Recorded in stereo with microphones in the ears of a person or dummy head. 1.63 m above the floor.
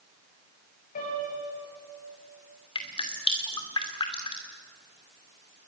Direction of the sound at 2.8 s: 25° left (ahead or behind).